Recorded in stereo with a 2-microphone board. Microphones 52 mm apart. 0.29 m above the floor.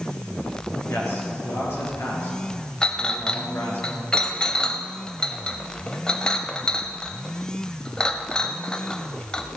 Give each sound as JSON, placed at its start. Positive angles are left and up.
{"t": 0.9, "sound": "a man speaking", "side_deg": 55, "distance_m": 5.5}
{"t": 2.8, "sound": "a clink", "side_deg": 15, "distance_m": 0.9}